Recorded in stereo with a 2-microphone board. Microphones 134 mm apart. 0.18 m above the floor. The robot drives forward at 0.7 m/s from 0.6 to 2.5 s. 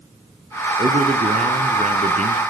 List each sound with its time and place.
0.8 s a man speaking: 50° right (ahead or behind), 2 m; by 2.4 s 55° right (ahead or behind), 1.9 m